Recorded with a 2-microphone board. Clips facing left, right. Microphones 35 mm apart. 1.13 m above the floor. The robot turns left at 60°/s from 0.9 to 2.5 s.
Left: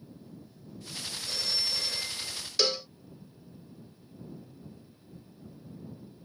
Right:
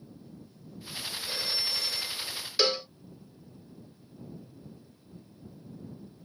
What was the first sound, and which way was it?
A phone ringing, 150° right.